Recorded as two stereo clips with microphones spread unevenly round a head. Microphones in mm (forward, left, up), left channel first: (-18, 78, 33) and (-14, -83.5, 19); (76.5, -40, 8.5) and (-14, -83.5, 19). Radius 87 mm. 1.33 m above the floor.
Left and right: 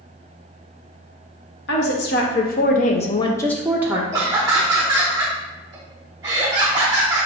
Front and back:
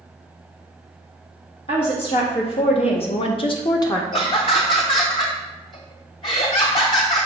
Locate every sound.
1.7 s a woman speaking: 70° left, 1.2 m; by 4.0 s 25° right, 0.6 m
4.1 s laughter: 15° right, 0.6 m